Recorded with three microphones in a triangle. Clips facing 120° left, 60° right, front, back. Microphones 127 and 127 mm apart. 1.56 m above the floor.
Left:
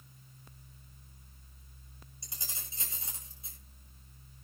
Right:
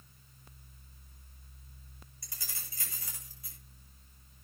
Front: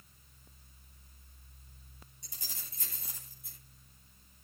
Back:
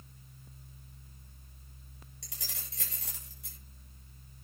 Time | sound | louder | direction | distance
2.2 | keys jangling | left 2 dB, back 3 dB | 170° right | 6.5 m